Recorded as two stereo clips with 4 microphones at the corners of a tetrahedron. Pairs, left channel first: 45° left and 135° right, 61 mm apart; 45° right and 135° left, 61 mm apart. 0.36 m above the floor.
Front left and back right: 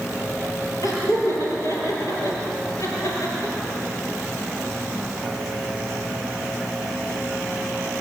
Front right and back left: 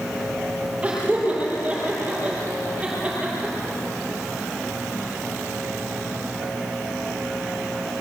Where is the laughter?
65° left, 7.5 m; by 3.8 s 60° left, 6 m.